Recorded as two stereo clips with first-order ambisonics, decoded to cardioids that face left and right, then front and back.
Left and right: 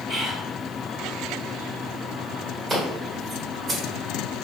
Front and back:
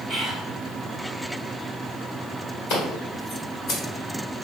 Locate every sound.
0.1 s whispering: 95° right, 1.5 m
2.7 s scissors: 25° right, 1.5 m